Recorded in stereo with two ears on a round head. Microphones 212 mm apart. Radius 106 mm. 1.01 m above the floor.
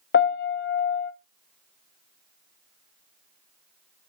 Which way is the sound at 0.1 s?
45° left (ahead or behind).